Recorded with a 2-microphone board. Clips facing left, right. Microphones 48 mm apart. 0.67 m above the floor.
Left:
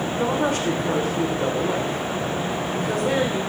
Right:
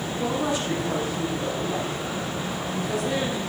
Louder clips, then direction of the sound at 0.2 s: Left 3 dB; 55° left (ahead or behind).